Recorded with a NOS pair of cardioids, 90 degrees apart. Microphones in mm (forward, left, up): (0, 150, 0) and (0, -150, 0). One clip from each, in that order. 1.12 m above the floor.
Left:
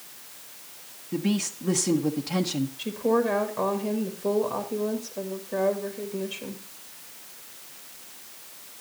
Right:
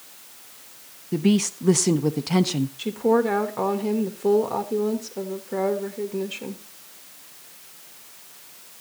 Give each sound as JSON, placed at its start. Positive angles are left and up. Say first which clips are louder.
{"t": 1.1, "sound": "a woman speaking", "louder": "right 6 dB", "azimuth_deg": -30, "distance_m": 0.7}
{"t": 2.8, "sound": "a woman speaking", "louder": "right 4 dB", "azimuth_deg": -30, "distance_m": 1.6}